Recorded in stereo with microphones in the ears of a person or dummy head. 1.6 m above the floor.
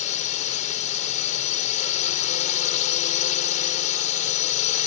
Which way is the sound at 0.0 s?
35° left (ahead or behind).